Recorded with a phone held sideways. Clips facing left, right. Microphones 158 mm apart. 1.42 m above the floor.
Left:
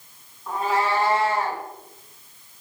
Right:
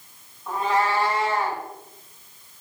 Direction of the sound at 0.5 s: 5° right (ahead or behind).